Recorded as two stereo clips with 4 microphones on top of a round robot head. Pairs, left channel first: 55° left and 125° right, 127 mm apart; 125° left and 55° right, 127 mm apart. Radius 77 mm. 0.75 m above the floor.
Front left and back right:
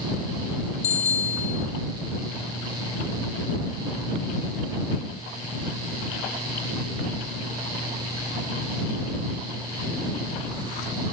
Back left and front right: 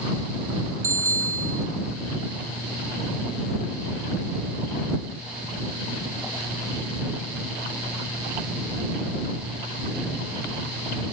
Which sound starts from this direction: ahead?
A bicycle bell, at 0.8 s.